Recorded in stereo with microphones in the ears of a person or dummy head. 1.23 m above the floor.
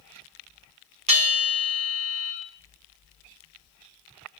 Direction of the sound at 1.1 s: 25° right (ahead or behind).